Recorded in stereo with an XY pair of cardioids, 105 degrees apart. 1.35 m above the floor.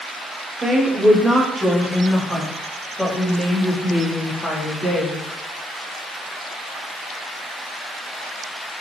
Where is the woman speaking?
25° right, 1.5 m; by 5.2 s 40° left, 2.5 m.